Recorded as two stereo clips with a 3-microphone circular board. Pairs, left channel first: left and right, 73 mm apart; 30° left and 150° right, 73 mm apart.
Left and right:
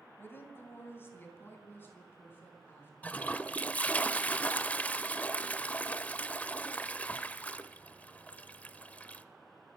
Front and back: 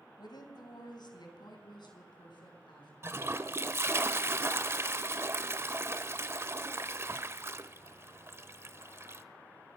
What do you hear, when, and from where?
0.2 s a woman speaking: 35° left, 2.0 m; by 2.9 s 30° left, 4.5 m
3.0 s a toilet flushing: 160° left, 0.6 m